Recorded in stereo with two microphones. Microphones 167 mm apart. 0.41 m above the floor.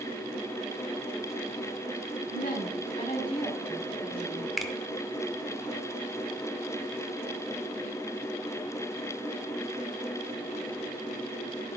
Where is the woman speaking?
60° left (ahead or behind), 2.5 m; by 4.5 s 5° left (ahead or behind), 3 m.